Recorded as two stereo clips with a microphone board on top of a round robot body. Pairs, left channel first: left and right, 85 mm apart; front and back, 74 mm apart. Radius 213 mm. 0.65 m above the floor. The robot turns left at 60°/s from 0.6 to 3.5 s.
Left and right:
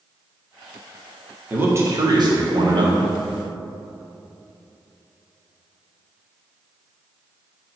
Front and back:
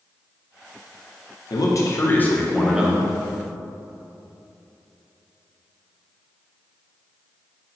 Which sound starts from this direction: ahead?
A man speaking, at 1.5 s.